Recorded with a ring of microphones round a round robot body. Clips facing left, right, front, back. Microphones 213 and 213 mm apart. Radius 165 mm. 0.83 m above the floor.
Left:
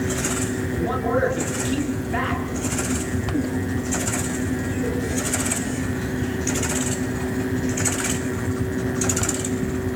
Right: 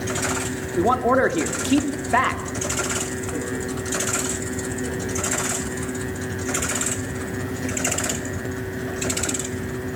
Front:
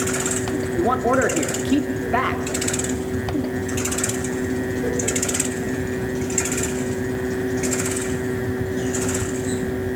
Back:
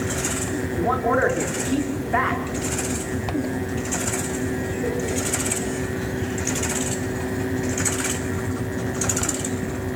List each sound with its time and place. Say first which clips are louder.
0.8 s a man speaking: right 5 dB, front 2 dB; 60° right, 1.9 m